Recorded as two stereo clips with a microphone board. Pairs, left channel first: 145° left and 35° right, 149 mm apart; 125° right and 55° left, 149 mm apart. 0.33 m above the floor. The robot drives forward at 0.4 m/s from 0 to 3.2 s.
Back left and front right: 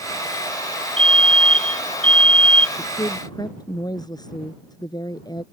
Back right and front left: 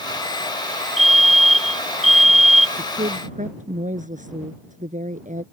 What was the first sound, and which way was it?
A fire alarm, 15° left.